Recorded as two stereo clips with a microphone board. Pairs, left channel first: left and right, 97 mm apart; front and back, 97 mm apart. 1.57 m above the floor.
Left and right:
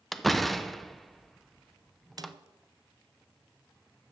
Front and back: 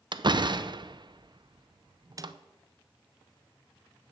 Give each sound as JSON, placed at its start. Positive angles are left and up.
{"t": 0.1, "sound": "a door slam", "azimuth_deg": 180, "distance_m": 0.6}
{"t": 2.2, "sound": "a snare drum", "azimuth_deg": -135, "distance_m": 0.5}